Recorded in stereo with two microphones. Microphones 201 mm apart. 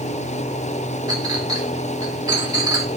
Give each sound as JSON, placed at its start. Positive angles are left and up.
{"t": 1.1, "sound": "a clink", "side_deg": -20, "distance_m": 1.9}